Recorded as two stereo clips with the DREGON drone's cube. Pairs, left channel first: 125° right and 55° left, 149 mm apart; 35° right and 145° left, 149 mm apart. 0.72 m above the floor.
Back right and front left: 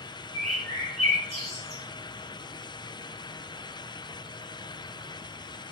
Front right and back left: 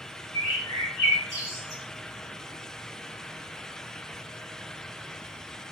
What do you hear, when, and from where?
0.3 s a bird: 105° left, 1.3 m